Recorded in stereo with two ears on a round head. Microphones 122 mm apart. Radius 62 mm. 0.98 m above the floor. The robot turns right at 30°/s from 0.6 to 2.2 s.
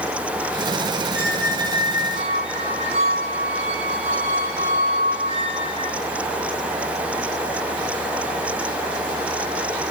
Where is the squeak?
160° right, 5.5 m; by 6.0 s 130° right, 5.5 m.